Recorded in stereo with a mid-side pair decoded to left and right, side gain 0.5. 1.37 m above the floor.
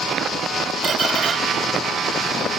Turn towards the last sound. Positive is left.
turn(degrees=-45)